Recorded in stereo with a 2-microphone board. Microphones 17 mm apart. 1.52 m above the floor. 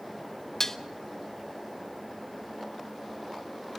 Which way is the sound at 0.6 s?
25° left (ahead or behind).